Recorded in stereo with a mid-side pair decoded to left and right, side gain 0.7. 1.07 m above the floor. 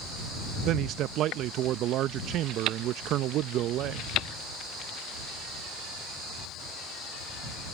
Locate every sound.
0.7 s a man speaking: 55° right